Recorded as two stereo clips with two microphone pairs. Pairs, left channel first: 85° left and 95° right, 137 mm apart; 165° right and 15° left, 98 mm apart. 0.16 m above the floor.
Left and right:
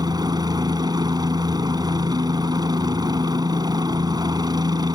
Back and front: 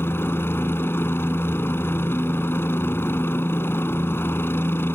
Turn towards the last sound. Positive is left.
turn(degrees=-125)